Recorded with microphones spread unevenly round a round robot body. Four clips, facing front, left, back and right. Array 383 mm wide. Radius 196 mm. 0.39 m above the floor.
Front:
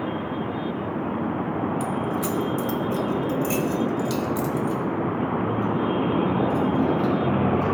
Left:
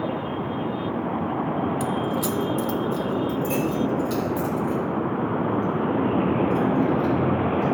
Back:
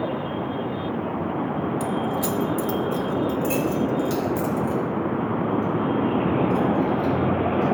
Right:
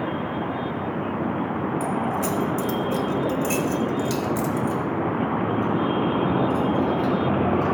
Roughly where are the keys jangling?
Behind left.